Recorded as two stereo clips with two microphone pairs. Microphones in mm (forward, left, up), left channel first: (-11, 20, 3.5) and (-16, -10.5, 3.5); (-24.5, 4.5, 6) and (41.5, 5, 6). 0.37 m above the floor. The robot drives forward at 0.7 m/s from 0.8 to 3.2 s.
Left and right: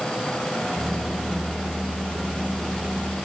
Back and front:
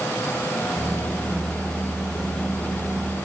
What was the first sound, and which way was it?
Only background noise.